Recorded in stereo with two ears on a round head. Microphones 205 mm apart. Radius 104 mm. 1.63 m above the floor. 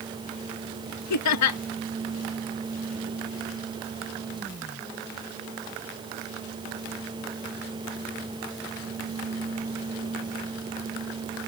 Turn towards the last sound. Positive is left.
turn(degrees=85)